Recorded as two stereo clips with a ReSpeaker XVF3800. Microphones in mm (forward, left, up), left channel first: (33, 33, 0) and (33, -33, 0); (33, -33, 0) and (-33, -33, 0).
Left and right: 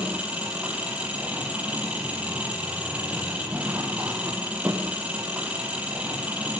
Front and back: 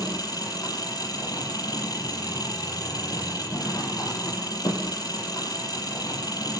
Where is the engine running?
20° right, 6.5 m.